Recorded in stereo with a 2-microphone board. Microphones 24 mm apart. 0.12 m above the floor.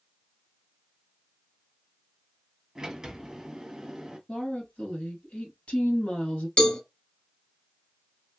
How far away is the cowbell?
About 1.0 m.